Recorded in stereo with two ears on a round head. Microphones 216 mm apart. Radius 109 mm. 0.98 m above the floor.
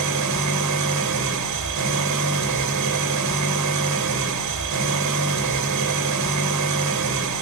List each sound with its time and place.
0.0 s an engine running: 85° right, 3 m